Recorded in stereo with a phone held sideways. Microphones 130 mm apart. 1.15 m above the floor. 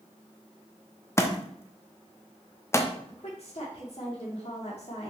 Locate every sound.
1.2 s a thud: 20° left (ahead or behind), 0.7 m
3.1 s a woman speaking: 55° left (ahead or behind), 3 m